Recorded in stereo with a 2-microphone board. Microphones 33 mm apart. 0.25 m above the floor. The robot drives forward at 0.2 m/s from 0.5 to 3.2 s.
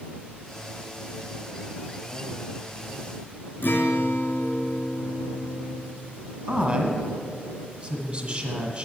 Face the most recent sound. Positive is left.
turn(degrees=-20)  # may be behind; listen again after turning